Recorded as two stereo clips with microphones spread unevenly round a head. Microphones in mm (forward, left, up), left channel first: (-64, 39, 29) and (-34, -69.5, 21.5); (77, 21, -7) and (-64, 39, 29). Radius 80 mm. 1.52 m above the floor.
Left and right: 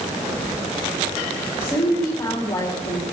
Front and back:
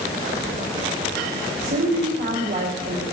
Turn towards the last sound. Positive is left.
turn(degrees=170)